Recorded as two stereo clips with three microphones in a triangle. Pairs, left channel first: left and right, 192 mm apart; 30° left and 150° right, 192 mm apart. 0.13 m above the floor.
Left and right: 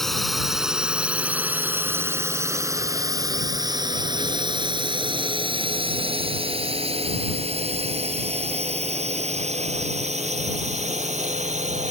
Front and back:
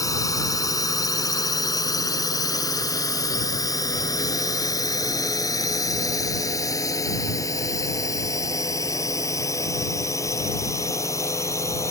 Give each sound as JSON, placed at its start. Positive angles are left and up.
{"t": 0.0, "sound": "a drone", "azimuth_deg": 5}